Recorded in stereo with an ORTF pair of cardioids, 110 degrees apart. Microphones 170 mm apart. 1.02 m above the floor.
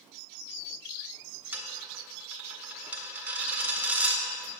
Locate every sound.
1.5 s a dropped coin: 10° right, 1.4 m